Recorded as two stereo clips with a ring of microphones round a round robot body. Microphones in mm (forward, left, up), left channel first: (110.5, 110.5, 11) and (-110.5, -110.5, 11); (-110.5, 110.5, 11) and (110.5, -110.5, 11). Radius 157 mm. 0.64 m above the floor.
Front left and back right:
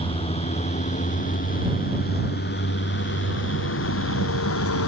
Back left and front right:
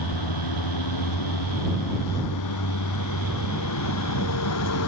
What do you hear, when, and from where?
0.0 s a vehicle: 120° left; by 4.9 s 90° left